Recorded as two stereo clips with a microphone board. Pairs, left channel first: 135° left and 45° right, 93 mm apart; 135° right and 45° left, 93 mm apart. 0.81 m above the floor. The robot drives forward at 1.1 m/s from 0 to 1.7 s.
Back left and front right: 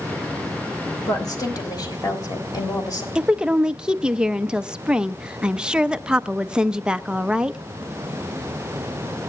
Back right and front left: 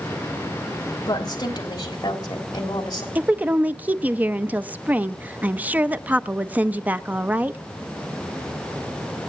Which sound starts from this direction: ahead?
A woman speaking, at 3.1 s.